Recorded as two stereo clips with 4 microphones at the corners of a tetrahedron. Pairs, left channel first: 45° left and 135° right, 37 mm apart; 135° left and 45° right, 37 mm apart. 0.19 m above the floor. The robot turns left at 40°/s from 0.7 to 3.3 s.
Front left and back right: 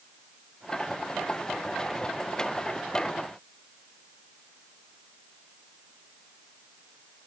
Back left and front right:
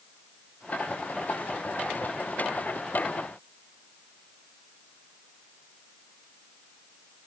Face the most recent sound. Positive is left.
No sound to turn to.